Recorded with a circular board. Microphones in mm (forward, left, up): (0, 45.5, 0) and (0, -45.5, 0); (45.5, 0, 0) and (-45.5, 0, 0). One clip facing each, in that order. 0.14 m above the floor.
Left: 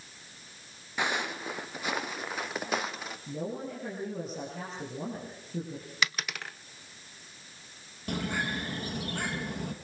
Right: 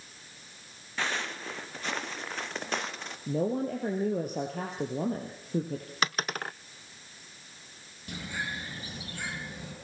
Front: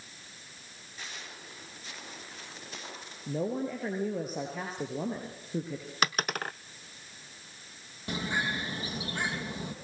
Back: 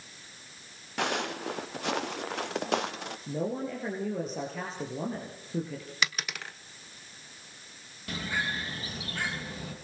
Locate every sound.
1.0 s footsteps: 165° left, 1.4 m; by 3.2 s 170° left, 2.5 m
3.3 s a woman speaking: 80° right, 3.5 m
6.0 s a dropped coin: 45° right, 0.5 m
8.1 s a bird: 65° left, 3.5 m